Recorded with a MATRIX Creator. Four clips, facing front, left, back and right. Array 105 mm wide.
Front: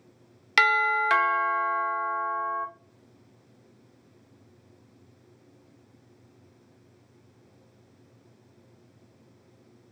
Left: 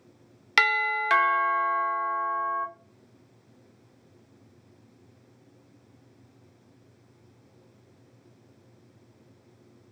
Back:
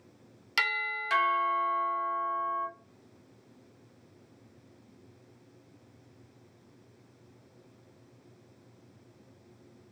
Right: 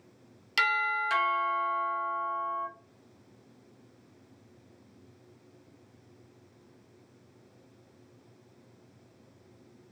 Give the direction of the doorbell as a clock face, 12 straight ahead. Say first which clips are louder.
Left 3 dB, front 11 dB; 10 o'clock.